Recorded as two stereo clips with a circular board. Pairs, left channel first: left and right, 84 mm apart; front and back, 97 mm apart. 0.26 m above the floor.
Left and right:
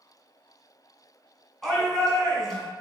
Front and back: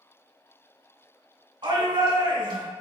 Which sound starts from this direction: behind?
A shout, at 1.6 s.